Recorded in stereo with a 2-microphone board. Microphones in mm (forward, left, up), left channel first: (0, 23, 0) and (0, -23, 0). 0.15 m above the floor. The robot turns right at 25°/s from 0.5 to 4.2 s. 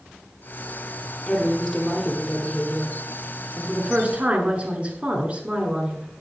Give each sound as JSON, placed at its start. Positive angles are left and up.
{"t": 1.3, "sound": "a woman speaking", "azimuth_deg": 145, "distance_m": 1.9}